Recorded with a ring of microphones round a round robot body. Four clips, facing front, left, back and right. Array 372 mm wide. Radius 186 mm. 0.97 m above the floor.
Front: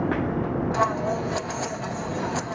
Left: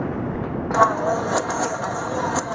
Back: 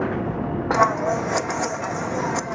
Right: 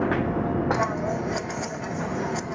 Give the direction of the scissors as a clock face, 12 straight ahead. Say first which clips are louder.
Left 8 dB, back 6 dB; 8 o'clock.